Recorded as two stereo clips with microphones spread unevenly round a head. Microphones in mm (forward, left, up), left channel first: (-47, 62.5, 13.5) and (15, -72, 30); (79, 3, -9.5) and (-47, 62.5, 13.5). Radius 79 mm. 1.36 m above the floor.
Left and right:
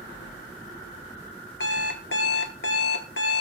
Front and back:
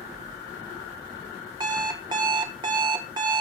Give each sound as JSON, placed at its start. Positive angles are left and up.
{"t": 1.6, "sound": "an alarm clock", "azimuth_deg": 110, "distance_m": 1.4}